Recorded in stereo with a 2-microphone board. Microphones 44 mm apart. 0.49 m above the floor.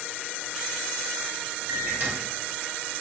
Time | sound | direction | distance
1.7 | a microwave | 50° right (ahead or behind) | 1.2 m